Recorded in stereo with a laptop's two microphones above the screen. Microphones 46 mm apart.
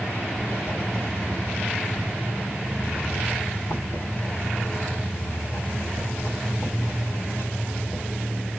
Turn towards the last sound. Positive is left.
turn(degrees=70)  # may be behind; listen again after turning